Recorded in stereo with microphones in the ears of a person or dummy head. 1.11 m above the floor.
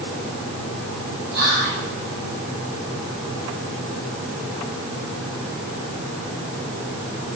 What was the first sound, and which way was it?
Whispering, 50° right (ahead or behind).